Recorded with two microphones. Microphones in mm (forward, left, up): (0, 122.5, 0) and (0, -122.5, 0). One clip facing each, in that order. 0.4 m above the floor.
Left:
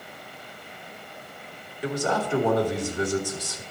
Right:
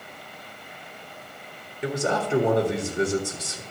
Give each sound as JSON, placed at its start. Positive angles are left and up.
{"t": 1.8, "sound": "a man speaking", "side_deg": -25, "distance_m": 1.4}